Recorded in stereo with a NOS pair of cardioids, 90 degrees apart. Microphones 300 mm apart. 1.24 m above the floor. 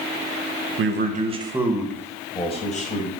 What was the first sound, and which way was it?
A man speaking, 45° right.